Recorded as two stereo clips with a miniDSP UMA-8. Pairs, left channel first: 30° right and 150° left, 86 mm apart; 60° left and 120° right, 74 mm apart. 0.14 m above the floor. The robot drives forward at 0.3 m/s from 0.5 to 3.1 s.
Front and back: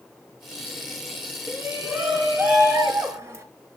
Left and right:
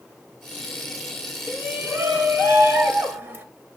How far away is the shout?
About 1.4 m.